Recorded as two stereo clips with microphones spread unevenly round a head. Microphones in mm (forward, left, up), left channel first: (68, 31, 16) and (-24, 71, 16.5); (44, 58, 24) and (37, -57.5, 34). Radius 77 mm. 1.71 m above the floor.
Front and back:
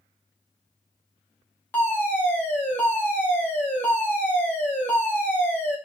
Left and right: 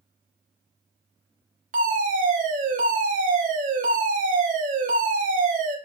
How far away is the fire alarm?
About 3.5 m.